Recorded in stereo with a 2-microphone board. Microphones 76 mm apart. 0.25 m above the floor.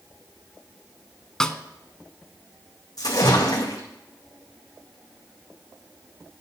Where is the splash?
55° left (ahead or behind), 2 m.